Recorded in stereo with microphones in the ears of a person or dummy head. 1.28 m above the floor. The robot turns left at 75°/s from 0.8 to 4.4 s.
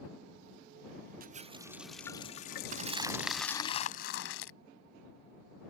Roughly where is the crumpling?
Behind right.